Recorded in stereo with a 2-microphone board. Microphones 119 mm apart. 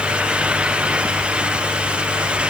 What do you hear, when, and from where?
Only background noise.